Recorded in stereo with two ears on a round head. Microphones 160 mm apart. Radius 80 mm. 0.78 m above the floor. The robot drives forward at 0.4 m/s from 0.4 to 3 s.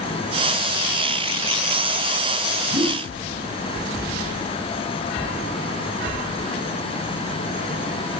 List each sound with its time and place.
2.7 s a whoosh: 25° right (ahead or behind), 1.2 m